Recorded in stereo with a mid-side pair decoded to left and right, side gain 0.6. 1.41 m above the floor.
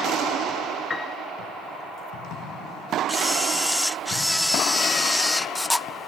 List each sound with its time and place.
0.9 s a piano: 20° left
3.1 s a camera shutter: 5° left